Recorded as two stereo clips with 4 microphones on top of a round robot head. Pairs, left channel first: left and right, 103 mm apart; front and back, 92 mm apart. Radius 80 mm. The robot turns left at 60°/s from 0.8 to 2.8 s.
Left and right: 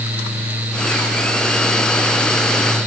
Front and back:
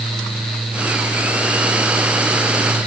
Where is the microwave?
I don't hear a microwave.